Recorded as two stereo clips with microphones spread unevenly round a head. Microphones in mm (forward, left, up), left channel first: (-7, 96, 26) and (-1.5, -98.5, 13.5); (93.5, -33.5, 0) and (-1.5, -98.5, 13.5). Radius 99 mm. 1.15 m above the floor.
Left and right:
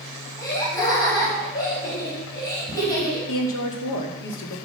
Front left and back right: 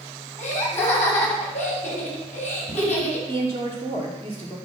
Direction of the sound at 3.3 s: 110° left.